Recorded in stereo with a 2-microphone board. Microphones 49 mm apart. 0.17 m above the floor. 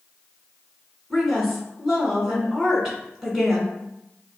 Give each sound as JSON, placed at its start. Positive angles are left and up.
{"t": 1.1, "sound": "a woman speaking", "side_deg": -5, "distance_m": 1.9}